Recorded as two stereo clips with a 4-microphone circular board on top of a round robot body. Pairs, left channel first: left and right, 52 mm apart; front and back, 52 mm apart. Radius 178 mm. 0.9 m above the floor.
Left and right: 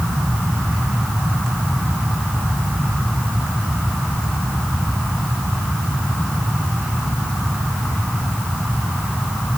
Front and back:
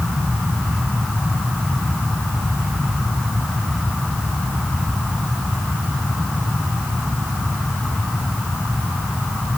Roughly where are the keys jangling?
No keys jangling in this recording.